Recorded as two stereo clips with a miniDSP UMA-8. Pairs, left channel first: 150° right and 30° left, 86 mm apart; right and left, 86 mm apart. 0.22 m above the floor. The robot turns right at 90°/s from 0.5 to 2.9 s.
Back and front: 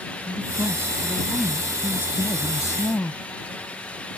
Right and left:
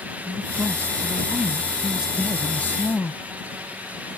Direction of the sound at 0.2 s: 25° left.